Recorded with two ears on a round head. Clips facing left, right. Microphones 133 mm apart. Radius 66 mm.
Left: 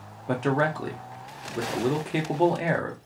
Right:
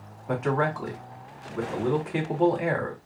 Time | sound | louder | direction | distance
0.3 | a man speaking | left 1 dB | 35° left (ahead or behind) | 0.8 m